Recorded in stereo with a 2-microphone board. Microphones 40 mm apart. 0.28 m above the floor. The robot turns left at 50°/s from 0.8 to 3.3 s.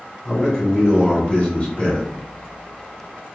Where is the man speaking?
15° left (ahead or behind), 1.5 m; by 2.1 s 25° left (ahead or behind), 1.5 m.